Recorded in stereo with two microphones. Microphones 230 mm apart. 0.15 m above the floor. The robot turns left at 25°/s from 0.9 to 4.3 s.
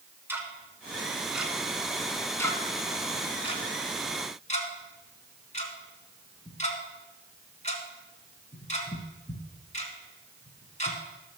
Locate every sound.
0.3 s ticking: 10° right (ahead or behind), 1.7 m; by 11.0 s 30° left (ahead or behind), 1.7 m